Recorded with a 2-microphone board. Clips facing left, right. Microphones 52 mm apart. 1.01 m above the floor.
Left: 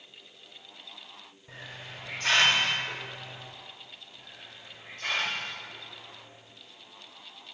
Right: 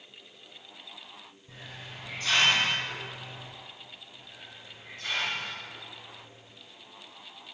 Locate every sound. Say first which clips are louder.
1.5 s a hiss: left 2 dB; 60° left (ahead or behind), 1.6 m
4.2 s a hiss: even; 60° left (ahead or behind), 1.2 m